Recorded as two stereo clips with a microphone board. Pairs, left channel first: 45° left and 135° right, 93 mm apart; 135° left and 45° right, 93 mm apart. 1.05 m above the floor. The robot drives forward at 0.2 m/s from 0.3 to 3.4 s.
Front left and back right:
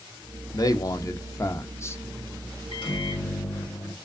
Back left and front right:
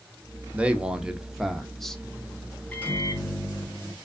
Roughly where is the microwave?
Ahead left.